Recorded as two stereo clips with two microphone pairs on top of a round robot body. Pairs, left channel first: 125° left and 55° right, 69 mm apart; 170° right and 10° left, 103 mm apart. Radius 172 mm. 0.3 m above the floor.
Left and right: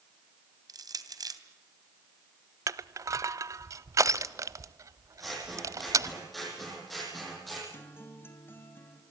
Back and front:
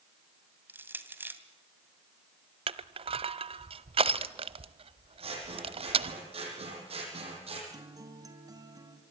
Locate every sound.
0.7 s crushing: 60° right, 2.5 m
2.7 s crushing: 20° right, 0.7 m
5.2 s scissors: 35° left, 9 m
7.7 s a guitar: 60° left, 2.5 m